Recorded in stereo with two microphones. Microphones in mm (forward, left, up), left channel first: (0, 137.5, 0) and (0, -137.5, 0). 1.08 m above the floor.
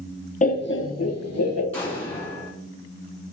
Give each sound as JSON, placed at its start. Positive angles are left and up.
{"t": 0.4, "sound": "laughter", "side_deg": 25, "distance_m": 0.5}
{"t": 1.7, "sound": "an explosion", "side_deg": 10, "distance_m": 1.5}